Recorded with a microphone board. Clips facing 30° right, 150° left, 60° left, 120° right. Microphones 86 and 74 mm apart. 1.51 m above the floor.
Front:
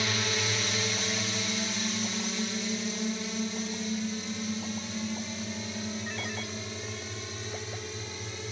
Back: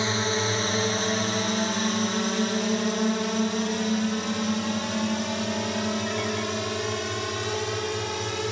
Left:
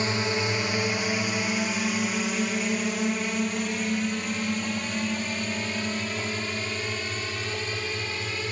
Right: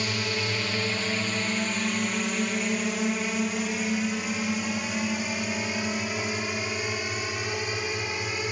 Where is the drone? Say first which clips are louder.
Back 6 dB, left 3 dB; 110° left; by 8.5 s 165° left.